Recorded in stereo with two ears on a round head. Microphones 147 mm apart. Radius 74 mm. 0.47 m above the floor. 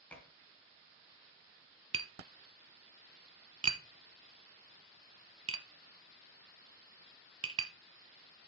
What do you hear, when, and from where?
0.1 s dishes clattering: 10° left (ahead or behind), 3 m
1.9 s tapping: 35° right (ahead or behind), 0.8 m